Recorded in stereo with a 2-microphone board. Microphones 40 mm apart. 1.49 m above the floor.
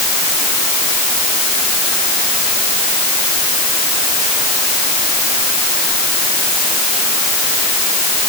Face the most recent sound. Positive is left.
No sound to turn to.